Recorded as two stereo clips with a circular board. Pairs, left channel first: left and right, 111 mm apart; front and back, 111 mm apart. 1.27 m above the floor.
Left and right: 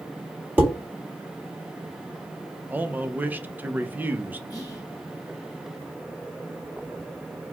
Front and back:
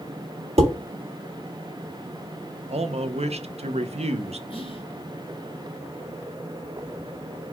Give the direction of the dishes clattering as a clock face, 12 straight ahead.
5 o'clock.